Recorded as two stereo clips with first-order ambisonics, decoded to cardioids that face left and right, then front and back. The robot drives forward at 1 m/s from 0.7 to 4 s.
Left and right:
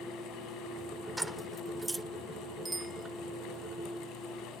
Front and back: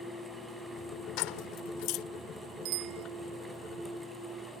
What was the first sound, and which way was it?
Keys jangling, 5° right.